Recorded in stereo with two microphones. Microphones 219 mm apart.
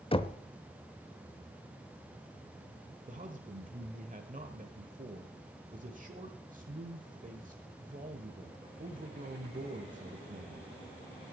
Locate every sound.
0.1 s knocking: 25° left (ahead or behind), 0.6 m
3.1 s a man speaking: 40° right (ahead or behind), 1.1 m